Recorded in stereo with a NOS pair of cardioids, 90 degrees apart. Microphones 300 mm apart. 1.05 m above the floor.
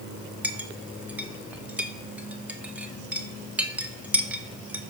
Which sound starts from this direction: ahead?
A clink, at 0.4 s.